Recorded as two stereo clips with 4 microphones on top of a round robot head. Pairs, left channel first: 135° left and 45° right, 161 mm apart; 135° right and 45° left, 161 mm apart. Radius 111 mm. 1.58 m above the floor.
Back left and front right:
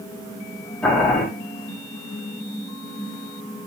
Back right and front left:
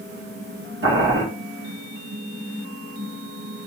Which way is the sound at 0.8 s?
50° left.